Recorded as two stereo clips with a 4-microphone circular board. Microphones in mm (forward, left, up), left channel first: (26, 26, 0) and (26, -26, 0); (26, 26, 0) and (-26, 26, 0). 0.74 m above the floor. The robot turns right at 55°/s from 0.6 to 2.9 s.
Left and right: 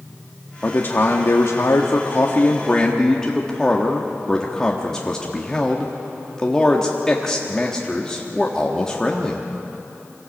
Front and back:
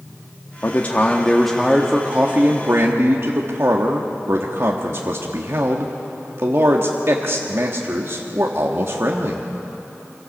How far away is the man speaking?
About 1.3 m.